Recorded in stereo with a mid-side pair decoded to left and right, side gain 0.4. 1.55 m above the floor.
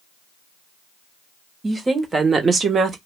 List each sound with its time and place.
1.6 s a woman speaking: 30° right, 1.4 m; by 3.0 s 65° right, 0.8 m